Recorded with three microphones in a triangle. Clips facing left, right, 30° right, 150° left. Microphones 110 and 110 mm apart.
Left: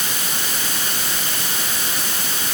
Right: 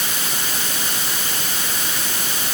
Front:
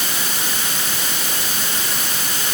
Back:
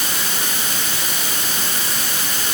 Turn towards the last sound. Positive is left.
No sound to turn to.